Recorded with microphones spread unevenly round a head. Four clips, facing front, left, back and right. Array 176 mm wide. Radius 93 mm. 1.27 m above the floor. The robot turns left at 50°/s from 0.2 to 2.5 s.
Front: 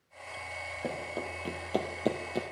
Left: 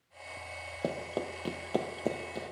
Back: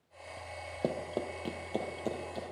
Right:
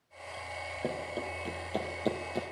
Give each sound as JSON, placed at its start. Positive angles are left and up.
{"t": 0.8, "sound": "running footsteps", "azimuth_deg": 160, "distance_m": 1.8}